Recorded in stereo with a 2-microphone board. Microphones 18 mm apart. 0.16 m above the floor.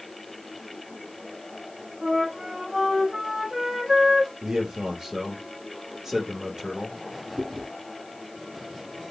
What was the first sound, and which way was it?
A flute, 25° right (ahead or behind).